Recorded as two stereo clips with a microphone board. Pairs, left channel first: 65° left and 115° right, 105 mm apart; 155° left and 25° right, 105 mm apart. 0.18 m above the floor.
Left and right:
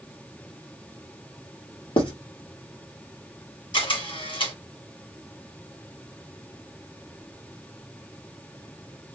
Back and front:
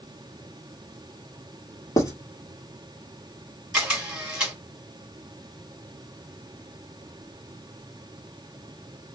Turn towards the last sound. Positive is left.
turn(degrees=60)